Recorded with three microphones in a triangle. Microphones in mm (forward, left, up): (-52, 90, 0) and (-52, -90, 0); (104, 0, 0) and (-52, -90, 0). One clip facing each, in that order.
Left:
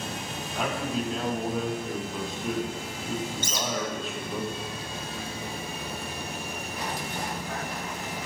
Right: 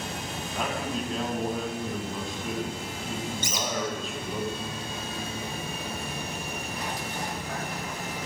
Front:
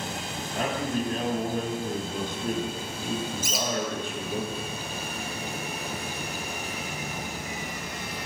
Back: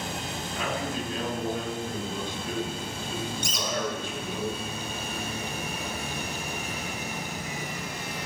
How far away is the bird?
About 1.1 m.